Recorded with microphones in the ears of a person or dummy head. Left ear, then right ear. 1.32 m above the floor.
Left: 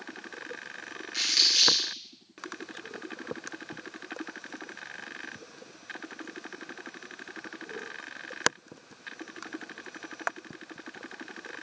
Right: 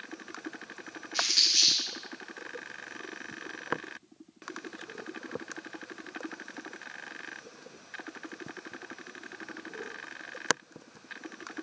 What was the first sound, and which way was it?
Crumpling, 20° left (ahead or behind).